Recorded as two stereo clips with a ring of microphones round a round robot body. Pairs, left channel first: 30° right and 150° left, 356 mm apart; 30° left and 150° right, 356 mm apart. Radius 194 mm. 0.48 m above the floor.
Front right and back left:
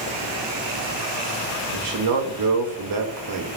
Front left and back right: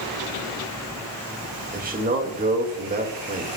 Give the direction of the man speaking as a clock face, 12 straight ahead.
7 o'clock.